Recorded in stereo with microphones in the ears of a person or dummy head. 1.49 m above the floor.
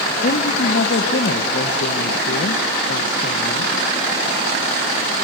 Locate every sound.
0.2 s a woman speaking: 55° left (ahead or behind), 1.2 m